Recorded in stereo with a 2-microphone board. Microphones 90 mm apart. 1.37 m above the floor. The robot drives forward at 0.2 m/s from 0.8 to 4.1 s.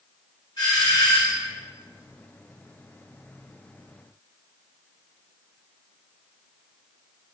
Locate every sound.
0.6 s a doorbell: 55° left (ahead or behind), 1.5 m; by 1.5 s 50° left (ahead or behind), 1.6 m